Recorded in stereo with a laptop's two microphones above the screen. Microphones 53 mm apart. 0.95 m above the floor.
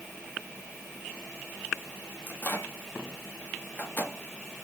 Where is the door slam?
I don't hear a door slam.